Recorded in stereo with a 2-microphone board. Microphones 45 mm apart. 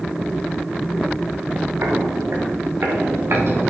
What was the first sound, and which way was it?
Footsteps, 75° right (ahead or behind).